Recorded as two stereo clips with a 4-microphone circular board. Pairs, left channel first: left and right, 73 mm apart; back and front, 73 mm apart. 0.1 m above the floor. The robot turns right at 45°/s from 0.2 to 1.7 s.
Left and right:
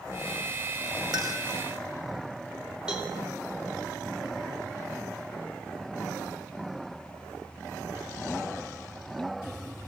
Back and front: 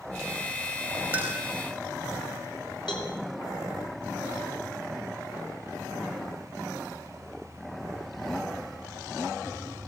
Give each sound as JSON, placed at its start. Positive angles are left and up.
{"t": 1.1, "sound": "a clink", "azimuth_deg": -65, "distance_m": 3.0}
{"t": 2.9, "sound": "a cowbell", "azimuth_deg": -170, "distance_m": 5.0}